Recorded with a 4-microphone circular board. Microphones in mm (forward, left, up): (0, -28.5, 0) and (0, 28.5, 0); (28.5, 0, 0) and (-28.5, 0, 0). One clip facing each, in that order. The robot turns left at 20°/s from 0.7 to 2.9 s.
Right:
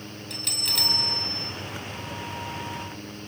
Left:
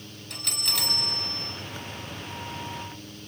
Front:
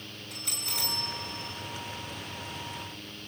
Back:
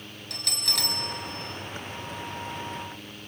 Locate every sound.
0.3 s a bell: straight behind, 6.5 m; by 1.5 s 165° left, 6.5 m